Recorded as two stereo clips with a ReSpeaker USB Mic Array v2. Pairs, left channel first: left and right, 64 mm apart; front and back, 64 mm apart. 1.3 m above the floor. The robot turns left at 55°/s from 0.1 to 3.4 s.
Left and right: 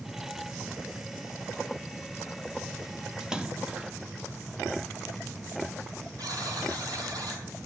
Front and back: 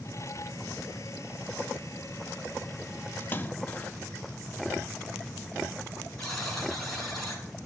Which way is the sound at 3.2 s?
15° right.